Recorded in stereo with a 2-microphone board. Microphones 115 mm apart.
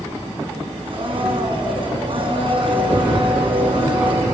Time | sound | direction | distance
0.9 | a blender | 45° right (ahead or behind) | 4.5 m